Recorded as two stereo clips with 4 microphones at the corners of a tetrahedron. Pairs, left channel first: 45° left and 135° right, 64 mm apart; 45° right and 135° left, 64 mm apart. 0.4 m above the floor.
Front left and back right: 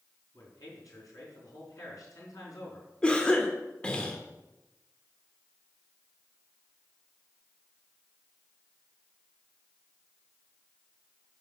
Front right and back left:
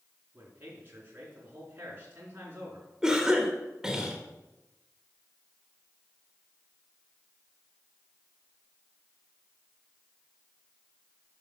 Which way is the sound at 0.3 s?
75° left.